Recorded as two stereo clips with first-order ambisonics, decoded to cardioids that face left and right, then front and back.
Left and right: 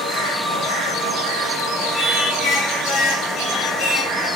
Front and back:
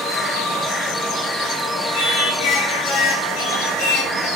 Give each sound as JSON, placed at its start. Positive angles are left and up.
{"t": 1.9, "sound": "singing", "azimuth_deg": 25, "distance_m": 7.5}